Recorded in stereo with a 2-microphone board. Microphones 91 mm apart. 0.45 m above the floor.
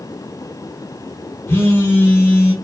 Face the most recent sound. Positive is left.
turn(degrees=25)  # may be behind; listen again after turning